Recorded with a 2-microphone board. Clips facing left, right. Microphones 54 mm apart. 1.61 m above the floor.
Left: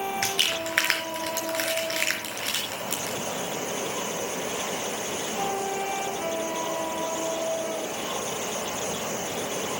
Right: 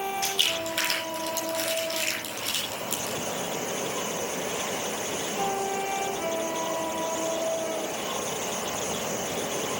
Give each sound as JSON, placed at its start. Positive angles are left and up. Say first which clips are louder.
{"t": 0.2, "sound": "crumpling", "louder": "left 1 dB", "side_deg": 65, "distance_m": 4.0}